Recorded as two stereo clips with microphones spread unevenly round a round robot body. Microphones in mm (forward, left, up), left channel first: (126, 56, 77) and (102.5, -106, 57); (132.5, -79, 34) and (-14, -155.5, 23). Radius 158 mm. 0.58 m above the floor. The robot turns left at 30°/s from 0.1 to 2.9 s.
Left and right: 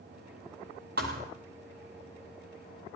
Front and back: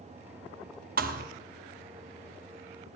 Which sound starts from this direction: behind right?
A thud, at 1.0 s.